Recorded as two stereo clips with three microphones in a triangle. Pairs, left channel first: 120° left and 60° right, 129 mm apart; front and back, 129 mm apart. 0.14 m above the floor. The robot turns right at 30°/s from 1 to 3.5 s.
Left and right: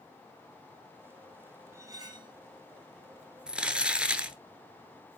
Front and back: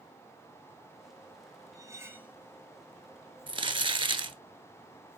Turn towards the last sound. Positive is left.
turn(degrees=-140)